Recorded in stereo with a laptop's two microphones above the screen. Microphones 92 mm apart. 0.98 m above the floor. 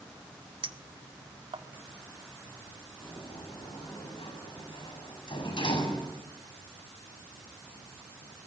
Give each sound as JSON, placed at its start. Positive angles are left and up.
{"t": 0.6, "sound": "a clink", "side_deg": -85, "distance_m": 1.5}
{"t": 3.0, "sound": "a sliding door", "side_deg": 75, "distance_m": 6.5}